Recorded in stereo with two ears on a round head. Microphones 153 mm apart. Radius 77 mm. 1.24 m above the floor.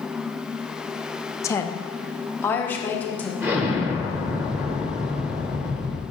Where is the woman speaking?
15° left (ahead or behind), 0.6 m; by 3.3 s 10° left (ahead or behind), 1.6 m.